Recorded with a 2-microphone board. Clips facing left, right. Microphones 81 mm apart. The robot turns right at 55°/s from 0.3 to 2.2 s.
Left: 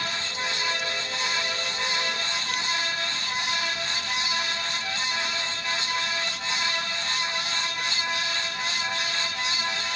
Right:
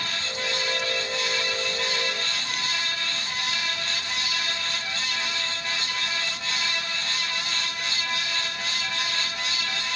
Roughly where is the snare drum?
I don't hear a snare drum.